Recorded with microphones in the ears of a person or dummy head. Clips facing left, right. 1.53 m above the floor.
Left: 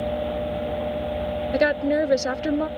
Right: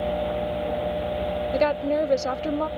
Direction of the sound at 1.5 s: 15° left (ahead or behind).